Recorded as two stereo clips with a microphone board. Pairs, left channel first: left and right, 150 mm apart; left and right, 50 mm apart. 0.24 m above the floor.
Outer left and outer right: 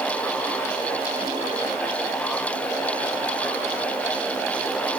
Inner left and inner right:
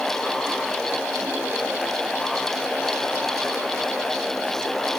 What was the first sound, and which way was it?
Only background noise.